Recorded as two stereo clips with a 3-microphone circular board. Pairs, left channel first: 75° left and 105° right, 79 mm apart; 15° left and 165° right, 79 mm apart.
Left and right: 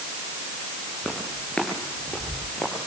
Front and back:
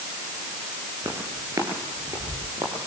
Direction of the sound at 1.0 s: 155° left.